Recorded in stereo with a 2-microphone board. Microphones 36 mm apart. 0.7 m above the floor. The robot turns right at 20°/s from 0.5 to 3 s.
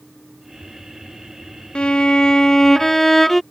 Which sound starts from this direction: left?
A violin, at 1.8 s.